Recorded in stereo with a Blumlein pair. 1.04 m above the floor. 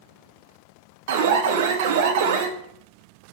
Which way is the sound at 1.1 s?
55° right.